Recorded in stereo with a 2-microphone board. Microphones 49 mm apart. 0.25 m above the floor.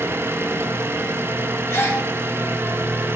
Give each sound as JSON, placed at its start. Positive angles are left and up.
{"t": 0.0, "sound": "an engine running", "side_deg": -55, "distance_m": 0.9}
{"t": 1.7, "sound": "a gasp", "side_deg": 65, "distance_m": 3.0}